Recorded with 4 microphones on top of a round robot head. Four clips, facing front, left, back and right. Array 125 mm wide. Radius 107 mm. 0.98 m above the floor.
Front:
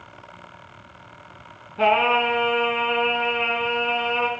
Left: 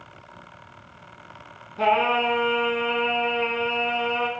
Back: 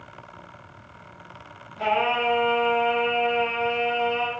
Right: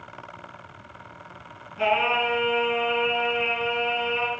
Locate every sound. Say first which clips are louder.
1.8 s singing: left 2 dB, front 4 dB; 30° left, 2 m